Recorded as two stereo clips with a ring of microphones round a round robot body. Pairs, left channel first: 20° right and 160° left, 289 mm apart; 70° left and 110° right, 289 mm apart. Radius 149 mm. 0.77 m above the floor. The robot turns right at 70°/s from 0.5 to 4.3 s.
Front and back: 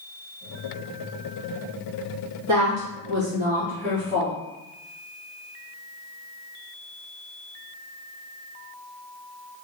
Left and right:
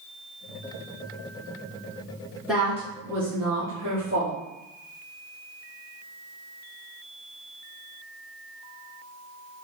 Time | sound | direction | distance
2.5 | a woman speaking | 155° left | 1.6 m